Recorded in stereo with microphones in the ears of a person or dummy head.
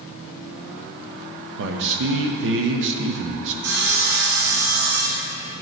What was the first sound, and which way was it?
A man speaking, 70° right (ahead or behind).